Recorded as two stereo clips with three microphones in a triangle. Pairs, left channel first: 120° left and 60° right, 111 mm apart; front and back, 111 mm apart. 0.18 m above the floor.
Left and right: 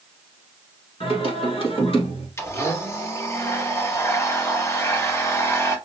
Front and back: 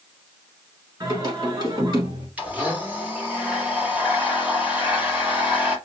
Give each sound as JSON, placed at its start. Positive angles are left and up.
{"t": 1.0, "sound": "singing", "azimuth_deg": 135, "distance_m": 1.7}
{"t": 2.4, "sound": "a blender", "azimuth_deg": 125, "distance_m": 1.0}